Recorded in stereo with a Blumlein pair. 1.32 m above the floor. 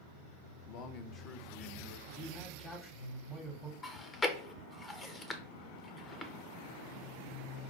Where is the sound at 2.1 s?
25° left, 1.2 m.